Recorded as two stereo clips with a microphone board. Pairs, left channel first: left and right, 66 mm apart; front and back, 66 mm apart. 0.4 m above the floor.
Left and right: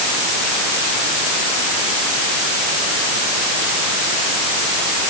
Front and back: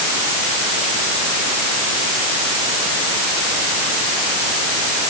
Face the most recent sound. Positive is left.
No sound to turn to.